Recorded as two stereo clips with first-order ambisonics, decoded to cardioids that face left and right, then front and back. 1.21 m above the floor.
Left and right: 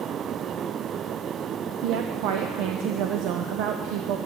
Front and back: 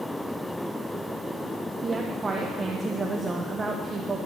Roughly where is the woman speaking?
Right.